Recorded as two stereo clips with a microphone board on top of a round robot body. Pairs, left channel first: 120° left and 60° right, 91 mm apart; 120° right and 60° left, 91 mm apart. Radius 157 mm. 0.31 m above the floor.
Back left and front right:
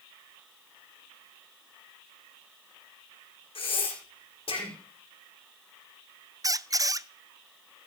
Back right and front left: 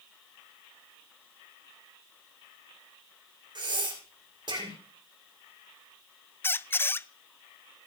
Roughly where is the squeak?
Right.